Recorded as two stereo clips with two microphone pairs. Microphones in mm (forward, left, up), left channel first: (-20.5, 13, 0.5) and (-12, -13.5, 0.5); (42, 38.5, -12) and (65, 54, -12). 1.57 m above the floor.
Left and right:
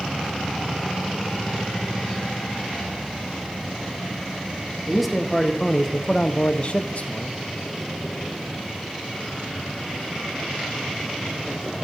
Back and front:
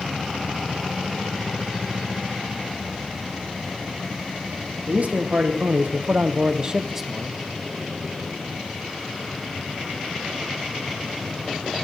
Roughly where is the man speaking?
Ahead.